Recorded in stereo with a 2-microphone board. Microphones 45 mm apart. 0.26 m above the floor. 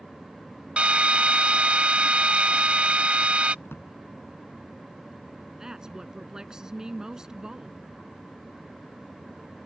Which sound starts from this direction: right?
A drill, at 0.8 s.